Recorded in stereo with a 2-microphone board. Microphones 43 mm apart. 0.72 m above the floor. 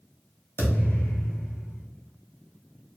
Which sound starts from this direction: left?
A thud, at 0.6 s.